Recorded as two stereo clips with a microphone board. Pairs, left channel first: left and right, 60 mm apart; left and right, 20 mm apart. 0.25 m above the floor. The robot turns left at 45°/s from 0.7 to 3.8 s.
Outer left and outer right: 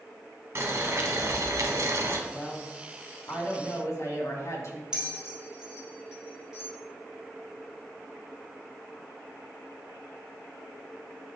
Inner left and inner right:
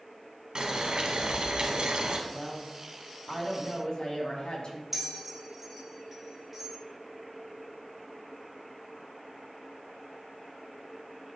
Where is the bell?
10° right (ahead or behind), 1.1 m.